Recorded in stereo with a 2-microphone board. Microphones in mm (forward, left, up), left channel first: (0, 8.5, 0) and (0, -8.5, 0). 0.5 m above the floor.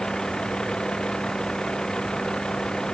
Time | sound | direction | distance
0.0 | a vehicle | 50° left (ahead or behind) | ?